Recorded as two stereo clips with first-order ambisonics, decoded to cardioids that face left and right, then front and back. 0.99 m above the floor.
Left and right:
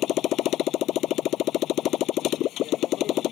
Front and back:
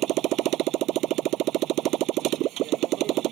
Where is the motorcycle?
135° left.